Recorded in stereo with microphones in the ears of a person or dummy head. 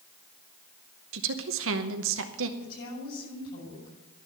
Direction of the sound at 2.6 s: 55° left (ahead or behind).